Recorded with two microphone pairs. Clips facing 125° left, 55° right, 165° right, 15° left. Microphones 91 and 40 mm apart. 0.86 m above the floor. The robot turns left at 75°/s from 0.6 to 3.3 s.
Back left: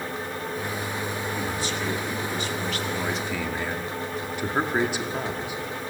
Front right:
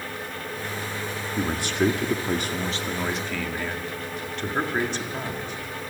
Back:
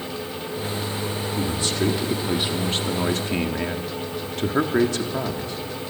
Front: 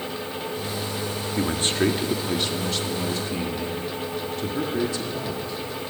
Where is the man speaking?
10° right, 1.7 m; by 5.9 s 155° right, 1.7 m.